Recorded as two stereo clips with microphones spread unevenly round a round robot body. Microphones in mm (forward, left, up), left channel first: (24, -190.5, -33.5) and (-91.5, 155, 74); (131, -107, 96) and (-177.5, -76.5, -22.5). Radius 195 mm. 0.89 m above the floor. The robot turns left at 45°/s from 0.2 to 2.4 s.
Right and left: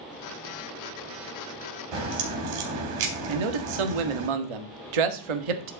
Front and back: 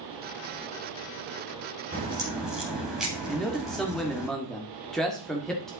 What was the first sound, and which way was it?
A crack, 110° left.